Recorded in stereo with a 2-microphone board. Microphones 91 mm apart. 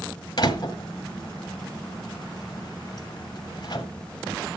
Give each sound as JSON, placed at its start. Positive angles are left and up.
{"t": 0.4, "sound": "a door slam", "side_deg": 55, "distance_m": 1.7}